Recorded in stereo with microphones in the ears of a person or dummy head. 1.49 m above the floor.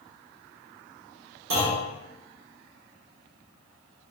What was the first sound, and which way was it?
A clunk, 55° right (ahead or behind).